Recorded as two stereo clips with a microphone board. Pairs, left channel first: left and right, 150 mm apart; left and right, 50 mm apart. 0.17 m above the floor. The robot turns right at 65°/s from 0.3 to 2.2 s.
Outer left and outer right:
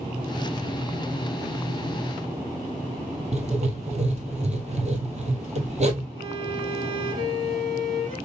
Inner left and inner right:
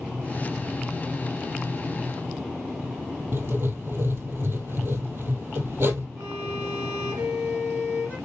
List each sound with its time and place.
3.3 s writing: 50° right (ahead or behind), 1.3 m
6.2 s a violin: 40° right (ahead or behind), 3.5 m